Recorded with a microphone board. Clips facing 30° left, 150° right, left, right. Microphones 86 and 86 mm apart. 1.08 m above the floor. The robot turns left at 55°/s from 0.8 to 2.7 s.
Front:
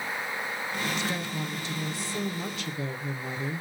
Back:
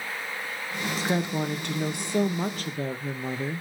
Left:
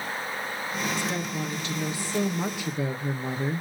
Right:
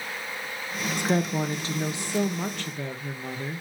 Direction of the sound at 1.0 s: 100° right.